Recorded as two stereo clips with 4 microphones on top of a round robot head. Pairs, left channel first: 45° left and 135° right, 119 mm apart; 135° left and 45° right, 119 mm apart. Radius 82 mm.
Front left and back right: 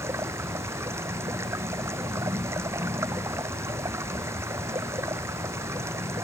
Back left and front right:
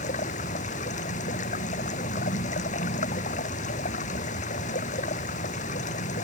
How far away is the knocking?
No knocking in this recording.